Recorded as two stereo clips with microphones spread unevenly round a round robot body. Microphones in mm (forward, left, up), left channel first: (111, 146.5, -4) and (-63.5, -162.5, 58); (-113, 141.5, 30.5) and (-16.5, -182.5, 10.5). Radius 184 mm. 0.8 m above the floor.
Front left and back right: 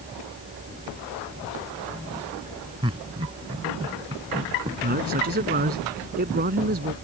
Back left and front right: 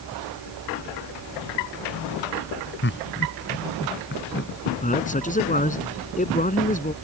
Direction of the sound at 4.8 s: 175° left.